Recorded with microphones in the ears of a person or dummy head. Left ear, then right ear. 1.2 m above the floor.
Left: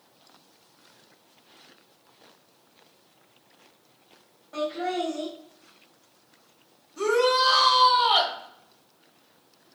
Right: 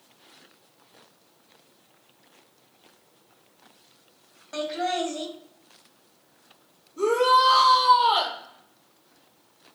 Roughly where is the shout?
Left.